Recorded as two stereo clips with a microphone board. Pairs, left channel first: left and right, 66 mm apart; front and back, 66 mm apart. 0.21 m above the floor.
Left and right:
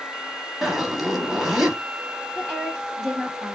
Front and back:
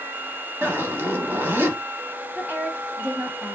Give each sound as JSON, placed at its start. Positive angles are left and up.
{"t": 0.6, "sound": "a zipper", "azimuth_deg": -165, "distance_m": 0.7}
{"t": 2.4, "sound": "a woman speaking", "azimuth_deg": -170, "distance_m": 1.1}